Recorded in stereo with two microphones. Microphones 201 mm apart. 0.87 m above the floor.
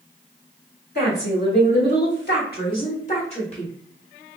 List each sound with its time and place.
0.9 s a woman speaking: 50° left (ahead or behind), 1.8 m; by 3.7 s 25° left (ahead or behind), 1.6 m